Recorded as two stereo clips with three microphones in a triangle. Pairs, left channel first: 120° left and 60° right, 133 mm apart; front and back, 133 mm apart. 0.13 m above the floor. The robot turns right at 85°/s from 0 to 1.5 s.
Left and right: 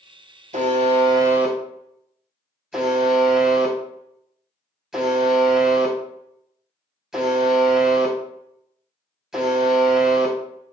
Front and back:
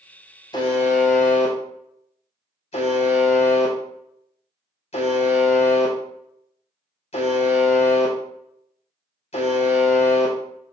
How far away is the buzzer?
About 0.7 m.